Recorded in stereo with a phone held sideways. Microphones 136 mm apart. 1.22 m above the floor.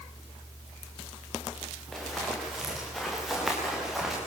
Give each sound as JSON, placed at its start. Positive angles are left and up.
{"t": 1.9, "sound": "running footsteps", "side_deg": 0, "distance_m": 9.0}